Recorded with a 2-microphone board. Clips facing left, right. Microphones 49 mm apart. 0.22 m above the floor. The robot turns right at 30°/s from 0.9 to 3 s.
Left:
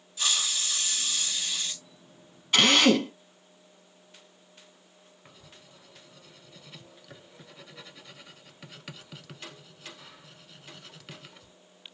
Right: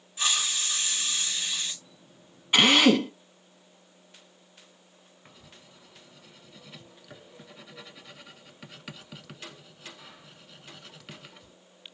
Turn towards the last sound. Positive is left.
turn(degrees=-5)  # may be behind; listen again after turning